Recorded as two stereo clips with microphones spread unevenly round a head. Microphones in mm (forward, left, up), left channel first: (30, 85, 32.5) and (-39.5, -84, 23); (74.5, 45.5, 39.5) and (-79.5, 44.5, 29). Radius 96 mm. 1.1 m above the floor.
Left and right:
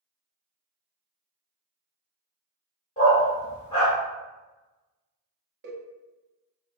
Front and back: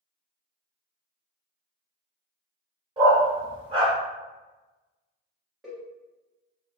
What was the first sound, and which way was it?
A dog barking, 125° left.